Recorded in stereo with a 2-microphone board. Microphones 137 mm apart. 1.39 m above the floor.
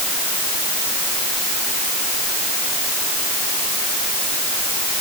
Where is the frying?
No frying in this recording.